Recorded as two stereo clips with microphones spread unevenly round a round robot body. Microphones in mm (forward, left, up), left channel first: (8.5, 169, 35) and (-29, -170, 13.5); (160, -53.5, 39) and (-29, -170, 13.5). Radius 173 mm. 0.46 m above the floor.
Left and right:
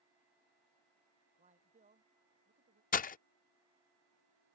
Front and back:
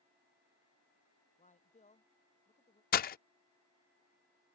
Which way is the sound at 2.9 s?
30° left.